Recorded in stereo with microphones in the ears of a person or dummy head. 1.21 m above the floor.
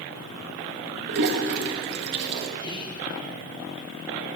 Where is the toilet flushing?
55° right (ahead or behind), 1.2 m.